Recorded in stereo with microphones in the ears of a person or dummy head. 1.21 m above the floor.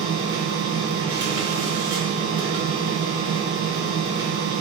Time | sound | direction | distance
0.0 | a machine running | 25° right (ahead or behind) | 1.1 m